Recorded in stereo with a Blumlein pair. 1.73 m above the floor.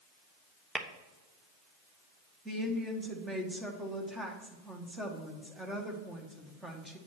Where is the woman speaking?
10° right, 1.9 m.